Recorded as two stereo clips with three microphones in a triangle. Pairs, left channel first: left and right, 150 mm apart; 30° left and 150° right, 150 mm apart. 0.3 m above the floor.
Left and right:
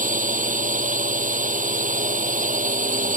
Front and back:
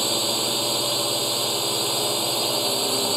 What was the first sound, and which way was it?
A drone, 60° right.